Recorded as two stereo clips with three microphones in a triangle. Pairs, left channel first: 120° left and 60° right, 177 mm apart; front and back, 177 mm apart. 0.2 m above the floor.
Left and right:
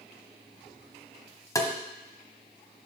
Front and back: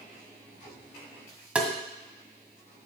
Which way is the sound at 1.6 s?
110° left.